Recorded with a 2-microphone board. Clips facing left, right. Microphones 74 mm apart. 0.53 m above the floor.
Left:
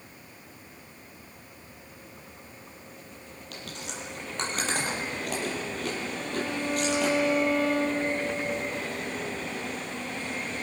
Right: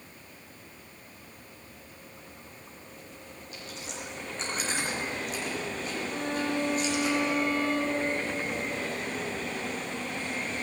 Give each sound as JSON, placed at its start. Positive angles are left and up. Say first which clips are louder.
{"t": 3.5, "sound": "chewing", "louder": "left 2 dB", "side_deg": 75, "distance_m": 6.0}
{"t": 6.1, "sound": "a violin", "louder": "right 1 dB", "side_deg": -50, "distance_m": 6.5}